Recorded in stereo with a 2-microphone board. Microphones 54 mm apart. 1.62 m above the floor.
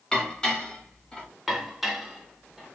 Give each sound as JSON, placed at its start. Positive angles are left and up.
{"t": 0.1, "sound": "dishes clattering", "side_deg": 15, "distance_m": 1.5}
{"t": 1.5, "sound": "dishes clattering", "side_deg": -5, "distance_m": 0.7}